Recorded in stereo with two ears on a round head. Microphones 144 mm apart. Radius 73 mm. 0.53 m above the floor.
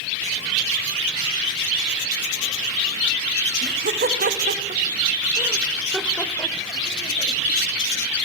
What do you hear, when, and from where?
3.6 s laughter: 60° right (ahead or behind), 2.5 m; by 7.4 s 35° left (ahead or behind), 2.5 m